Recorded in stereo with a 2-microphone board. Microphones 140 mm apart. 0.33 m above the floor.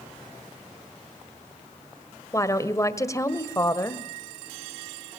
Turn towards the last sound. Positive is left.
turn(degrees=20)  # may be behind; listen again after turning